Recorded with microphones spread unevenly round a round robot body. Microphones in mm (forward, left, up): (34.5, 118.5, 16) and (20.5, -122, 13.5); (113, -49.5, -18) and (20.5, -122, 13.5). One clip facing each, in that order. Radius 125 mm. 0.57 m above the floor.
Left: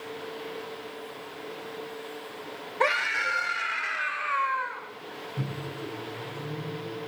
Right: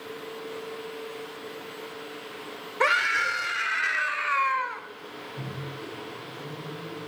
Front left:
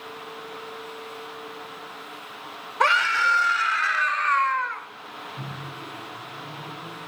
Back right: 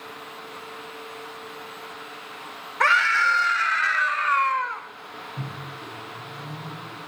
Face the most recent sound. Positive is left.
turn(degrees=150)